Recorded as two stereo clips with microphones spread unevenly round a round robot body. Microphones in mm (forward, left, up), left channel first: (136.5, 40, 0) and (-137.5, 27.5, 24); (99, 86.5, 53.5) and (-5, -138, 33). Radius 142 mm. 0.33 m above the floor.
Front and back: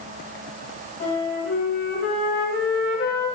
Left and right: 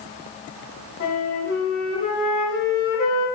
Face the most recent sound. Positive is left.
turn(degrees=20)